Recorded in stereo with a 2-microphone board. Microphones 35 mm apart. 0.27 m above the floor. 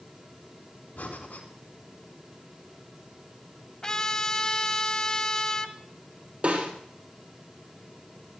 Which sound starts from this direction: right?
A snare drum, at 6.4 s.